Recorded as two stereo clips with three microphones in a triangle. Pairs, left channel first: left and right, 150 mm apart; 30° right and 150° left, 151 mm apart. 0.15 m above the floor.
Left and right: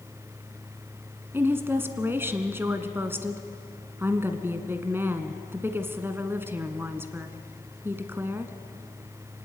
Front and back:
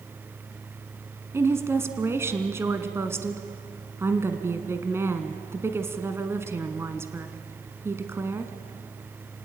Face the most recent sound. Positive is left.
turn(degrees=-150)